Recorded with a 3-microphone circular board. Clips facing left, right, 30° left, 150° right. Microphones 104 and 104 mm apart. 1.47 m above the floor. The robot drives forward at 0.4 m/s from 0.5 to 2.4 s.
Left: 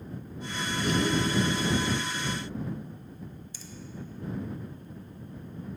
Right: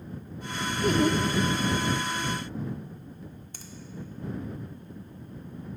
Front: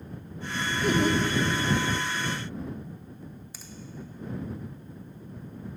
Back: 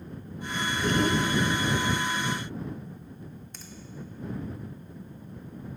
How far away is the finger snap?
About 0.9 m.